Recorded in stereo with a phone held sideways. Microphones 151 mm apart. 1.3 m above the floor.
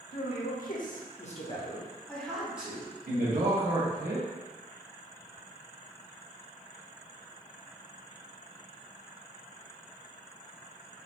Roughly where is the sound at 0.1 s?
Left.